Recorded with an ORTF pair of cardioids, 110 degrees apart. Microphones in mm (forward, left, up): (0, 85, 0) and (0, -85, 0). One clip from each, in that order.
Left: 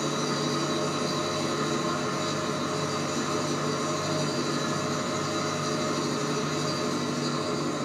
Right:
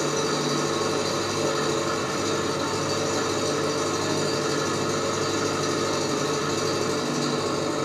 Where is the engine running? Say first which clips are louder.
Right 4 dB; 60° right, 3.5 m.